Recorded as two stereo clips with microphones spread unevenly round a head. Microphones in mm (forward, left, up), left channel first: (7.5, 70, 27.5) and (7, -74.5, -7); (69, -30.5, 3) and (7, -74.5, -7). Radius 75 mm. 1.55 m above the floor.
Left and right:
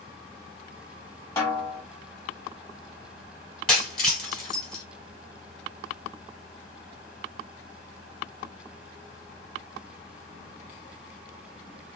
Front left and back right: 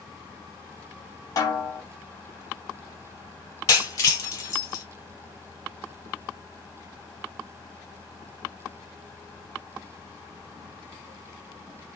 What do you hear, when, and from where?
1.4 s a snare drum: 35° left, 1.5 m
3.7 s breaking glass: 15° left, 2.0 m